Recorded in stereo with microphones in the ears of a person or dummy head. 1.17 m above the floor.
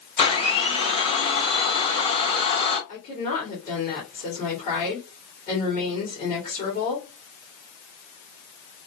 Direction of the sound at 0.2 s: 25° left (ahead or behind).